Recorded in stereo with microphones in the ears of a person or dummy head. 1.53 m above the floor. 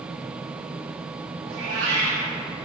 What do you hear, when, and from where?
1.5 s a cat meowing: 65° right (ahead or behind), 1.6 m